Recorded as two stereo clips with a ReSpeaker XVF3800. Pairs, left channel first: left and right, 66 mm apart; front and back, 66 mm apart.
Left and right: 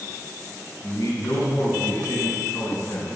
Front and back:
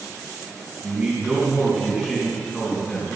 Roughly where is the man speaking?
Behind left.